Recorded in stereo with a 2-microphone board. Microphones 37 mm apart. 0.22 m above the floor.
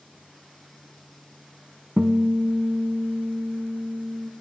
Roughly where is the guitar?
Right.